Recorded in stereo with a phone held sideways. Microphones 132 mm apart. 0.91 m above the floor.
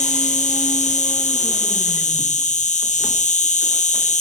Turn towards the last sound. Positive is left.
turn(degrees=70)  # may be behind; listen again after turning